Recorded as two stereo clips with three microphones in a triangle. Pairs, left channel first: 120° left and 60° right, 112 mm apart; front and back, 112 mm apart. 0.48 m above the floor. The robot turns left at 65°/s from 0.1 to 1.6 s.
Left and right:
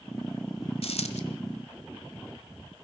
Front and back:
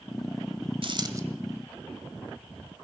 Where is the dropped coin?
145° left, 1.2 m; by 1.2 s 120° left, 1.2 m.